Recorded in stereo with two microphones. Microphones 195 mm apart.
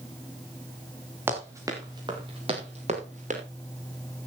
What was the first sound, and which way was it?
Running footsteps, 10° right (ahead or behind).